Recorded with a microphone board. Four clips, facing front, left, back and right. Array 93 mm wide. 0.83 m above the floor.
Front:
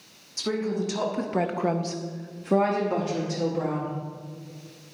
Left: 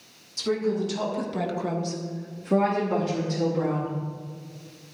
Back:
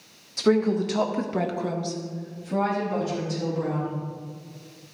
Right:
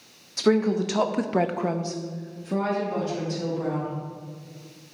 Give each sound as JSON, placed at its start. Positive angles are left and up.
{"t": 0.4, "sound": "a woman speaking", "azimuth_deg": -115, "distance_m": 1.6}